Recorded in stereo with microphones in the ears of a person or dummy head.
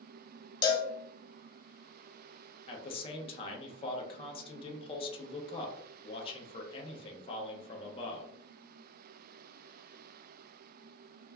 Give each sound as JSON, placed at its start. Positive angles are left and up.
{"t": 0.6, "sound": "a cowbell", "side_deg": 35, "distance_m": 0.6}
{"t": 2.7, "sound": "a man speaking", "side_deg": 35, "distance_m": 0.5}